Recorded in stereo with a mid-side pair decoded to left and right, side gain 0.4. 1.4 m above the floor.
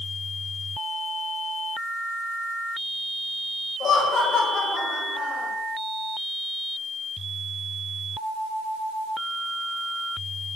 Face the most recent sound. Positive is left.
turn(degrees=60)